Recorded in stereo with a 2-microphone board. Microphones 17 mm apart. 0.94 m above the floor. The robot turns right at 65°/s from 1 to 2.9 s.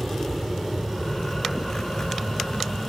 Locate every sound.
0.0 s an aircraft: 15° right (ahead or behind); by 2.9 s 30° right (ahead or behind)